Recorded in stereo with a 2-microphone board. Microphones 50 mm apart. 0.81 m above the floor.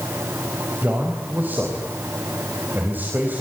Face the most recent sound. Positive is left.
turn(degrees=-40)  # may be behind; listen again after turning